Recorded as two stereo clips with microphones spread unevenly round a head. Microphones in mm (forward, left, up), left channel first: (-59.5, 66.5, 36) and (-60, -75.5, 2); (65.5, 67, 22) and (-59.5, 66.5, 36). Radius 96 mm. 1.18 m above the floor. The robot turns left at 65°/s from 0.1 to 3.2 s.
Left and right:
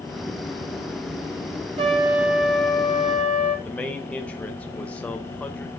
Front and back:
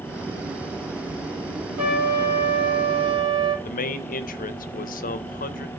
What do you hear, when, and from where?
1.8 s a trumpet: 135° right, 3 m; by 3.5 s 130° left, 3 m
3.6 s a man speaking: 5° left, 0.6 m